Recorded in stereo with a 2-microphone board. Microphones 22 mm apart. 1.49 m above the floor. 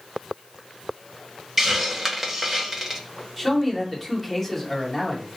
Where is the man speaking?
15° left (ahead or behind), 1.6 m.